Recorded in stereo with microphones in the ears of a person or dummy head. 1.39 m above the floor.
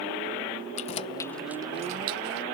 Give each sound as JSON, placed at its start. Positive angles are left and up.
{"t": 0.8, "sound": "keys jangling", "side_deg": 35}